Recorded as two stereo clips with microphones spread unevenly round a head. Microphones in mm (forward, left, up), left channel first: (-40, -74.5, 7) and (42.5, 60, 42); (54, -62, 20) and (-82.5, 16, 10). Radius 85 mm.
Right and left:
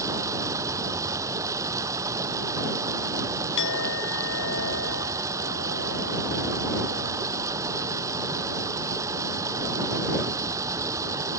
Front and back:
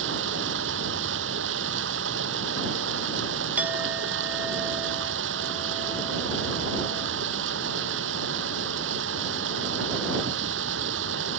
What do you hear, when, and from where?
0.0 s running water: 130° left
3.6 s a clink: 130° right